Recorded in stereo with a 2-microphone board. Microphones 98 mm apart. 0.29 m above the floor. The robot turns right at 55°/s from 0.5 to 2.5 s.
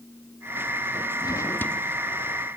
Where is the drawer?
135° left; by 1.8 s 170° left.